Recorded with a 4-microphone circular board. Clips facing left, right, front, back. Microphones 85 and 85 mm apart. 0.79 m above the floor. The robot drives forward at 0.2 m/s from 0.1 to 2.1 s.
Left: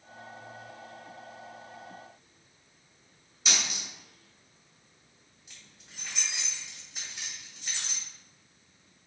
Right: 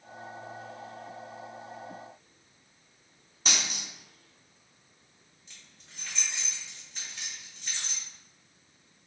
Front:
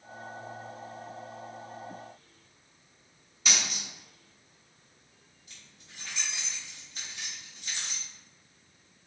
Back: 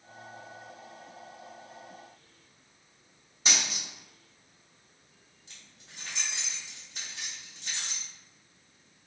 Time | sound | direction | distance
3.5 | a dropped coin | 125° right | 1.1 m
5.5 | keys jangling | 170° left | 1.2 m